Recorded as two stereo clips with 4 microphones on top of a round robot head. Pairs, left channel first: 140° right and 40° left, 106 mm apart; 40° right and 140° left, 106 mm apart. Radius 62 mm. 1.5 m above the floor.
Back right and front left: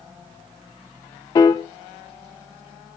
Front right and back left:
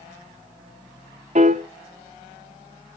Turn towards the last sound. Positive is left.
turn(degrees=165)